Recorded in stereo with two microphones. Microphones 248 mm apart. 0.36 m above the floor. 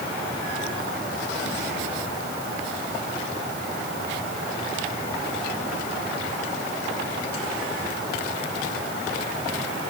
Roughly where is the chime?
I don't hear a chime.